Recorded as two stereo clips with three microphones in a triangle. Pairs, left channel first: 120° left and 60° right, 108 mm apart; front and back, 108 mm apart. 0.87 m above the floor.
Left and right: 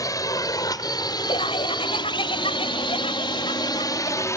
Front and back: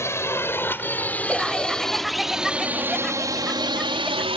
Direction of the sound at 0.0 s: 65° left.